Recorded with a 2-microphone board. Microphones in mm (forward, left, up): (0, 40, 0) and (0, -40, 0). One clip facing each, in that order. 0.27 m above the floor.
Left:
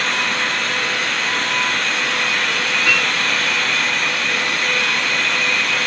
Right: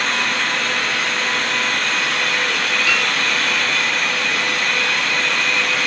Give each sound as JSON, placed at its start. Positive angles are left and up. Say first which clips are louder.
{"t": 2.9, "sound": "a piano", "louder": "left 2 dB", "side_deg": 75, "distance_m": 4.0}